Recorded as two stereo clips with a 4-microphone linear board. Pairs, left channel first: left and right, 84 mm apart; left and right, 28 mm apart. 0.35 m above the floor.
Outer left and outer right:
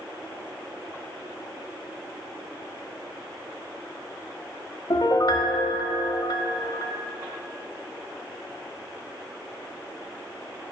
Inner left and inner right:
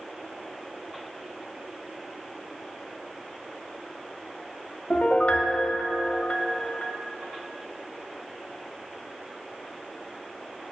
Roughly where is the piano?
Left.